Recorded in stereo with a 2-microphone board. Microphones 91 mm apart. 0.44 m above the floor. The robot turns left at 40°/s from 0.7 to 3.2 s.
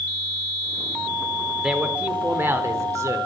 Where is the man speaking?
10° right, 1.3 m; by 3.2 s 70° right, 1.3 m.